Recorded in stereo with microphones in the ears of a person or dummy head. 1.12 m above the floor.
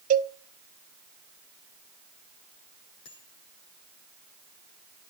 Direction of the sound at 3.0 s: 70° left (ahead or behind).